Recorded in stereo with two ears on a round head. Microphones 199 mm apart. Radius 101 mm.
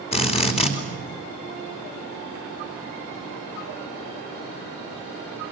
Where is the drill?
25° left (ahead or behind), 2.5 m.